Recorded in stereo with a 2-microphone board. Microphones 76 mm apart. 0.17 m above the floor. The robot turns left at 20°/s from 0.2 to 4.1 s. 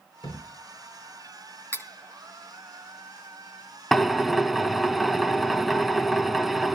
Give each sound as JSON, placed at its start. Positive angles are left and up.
{"t": 0.2, "sound": "a thud", "side_deg": 75, "distance_m": 5.0}
{"t": 1.7, "sound": "cutlery clinking", "side_deg": 30, "distance_m": 1.0}
{"t": 3.9, "sound": "a drill", "side_deg": 0, "distance_m": 0.6}